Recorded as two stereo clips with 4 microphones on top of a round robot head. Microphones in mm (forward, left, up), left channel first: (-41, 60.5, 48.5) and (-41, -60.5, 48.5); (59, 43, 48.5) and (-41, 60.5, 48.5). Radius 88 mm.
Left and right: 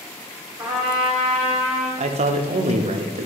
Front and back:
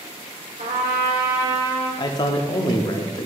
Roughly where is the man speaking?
Ahead right.